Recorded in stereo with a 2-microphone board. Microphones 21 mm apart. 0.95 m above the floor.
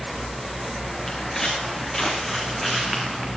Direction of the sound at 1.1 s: 15° left (ahead or behind).